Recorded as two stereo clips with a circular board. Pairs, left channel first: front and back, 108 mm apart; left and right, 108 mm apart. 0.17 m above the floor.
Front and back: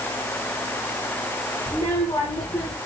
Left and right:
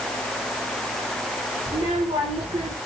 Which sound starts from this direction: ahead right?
A child speaking, at 1.7 s.